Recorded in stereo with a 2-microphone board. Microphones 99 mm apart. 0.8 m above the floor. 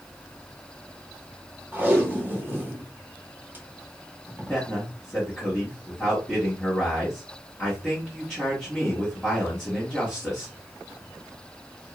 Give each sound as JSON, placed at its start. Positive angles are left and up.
{"t": 1.7, "sound": "tape being pulled", "side_deg": -20, "distance_m": 1.0}
{"t": 4.5, "sound": "a man speaking", "side_deg": 5, "distance_m": 1.3}